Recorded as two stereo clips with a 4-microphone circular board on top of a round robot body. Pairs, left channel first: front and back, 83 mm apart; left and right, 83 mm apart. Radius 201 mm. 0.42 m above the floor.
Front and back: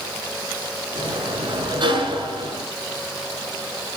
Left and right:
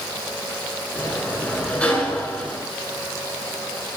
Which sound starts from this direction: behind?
A sliding door, at 0.9 s.